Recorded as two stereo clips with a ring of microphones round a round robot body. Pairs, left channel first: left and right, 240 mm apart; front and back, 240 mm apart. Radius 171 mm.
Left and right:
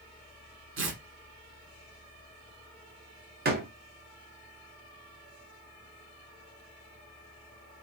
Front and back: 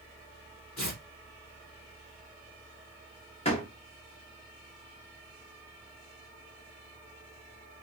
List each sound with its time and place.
0.8 s tearing paper: 55° right, 1.3 m
3.5 s a door slam: 60° right, 1.1 m